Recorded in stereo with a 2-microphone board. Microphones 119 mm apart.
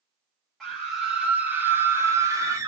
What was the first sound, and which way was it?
A scream, centre (ahead or behind).